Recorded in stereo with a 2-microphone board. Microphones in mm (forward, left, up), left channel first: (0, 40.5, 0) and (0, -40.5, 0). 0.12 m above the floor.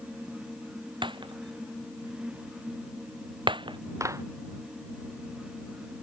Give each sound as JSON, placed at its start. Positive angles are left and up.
{"t": 1.0, "sound": "breaking glass", "side_deg": -80}
{"t": 4.0, "sound": "a clap", "side_deg": -40}